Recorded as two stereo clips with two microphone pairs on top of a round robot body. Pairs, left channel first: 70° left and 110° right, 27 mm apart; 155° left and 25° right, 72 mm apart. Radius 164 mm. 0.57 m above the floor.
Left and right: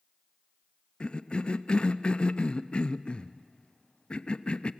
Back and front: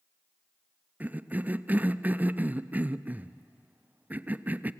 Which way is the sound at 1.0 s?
30° left.